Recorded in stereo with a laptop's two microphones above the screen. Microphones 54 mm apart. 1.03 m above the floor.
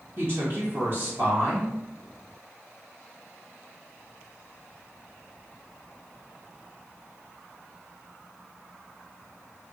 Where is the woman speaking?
45° right (ahead or behind), 1.7 m.